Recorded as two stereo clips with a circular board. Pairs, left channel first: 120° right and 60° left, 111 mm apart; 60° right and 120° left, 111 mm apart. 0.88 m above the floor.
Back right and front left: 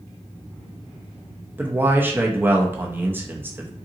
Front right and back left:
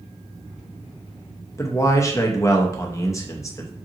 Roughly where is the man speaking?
Ahead.